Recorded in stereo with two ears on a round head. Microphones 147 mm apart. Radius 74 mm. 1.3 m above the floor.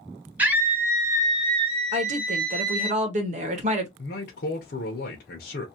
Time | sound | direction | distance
0.4 | a scream | 10° right (ahead or behind) | 1.3 m
1.9 | a woman speaking | 45° right (ahead or behind) | 1.3 m
4.0 | a man speaking | 60° left (ahead or behind) | 1.0 m